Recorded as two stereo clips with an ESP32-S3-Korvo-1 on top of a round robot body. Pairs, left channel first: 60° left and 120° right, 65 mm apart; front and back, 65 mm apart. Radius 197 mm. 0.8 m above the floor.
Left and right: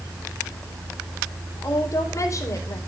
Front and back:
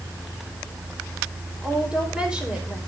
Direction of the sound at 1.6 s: 105° left.